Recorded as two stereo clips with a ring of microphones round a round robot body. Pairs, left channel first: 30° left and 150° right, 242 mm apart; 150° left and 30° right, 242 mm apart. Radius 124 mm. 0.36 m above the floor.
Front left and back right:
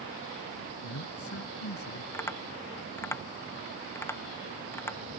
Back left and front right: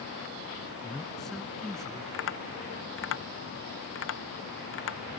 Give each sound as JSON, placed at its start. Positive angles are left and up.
{"t": 0.8, "sound": "a man speaking", "azimuth_deg": 60}
{"t": 2.1, "sound": "tapping", "azimuth_deg": 110}